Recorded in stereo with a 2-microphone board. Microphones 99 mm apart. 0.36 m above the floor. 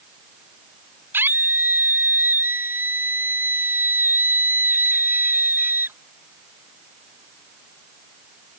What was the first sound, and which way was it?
A scream, 20° right (ahead or behind).